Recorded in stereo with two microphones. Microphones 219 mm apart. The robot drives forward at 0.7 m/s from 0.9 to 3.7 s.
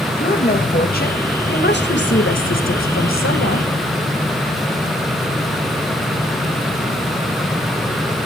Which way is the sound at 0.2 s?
45° left (ahead or behind).